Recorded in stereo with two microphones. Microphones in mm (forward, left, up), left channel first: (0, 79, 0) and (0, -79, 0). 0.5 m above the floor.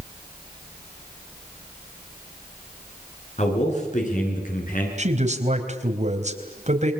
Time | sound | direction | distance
3.4 | a man speaking | 45° left (ahead or behind) | 8 m
5.0 | a man speaking | 45° right (ahead or behind) | 3.5 m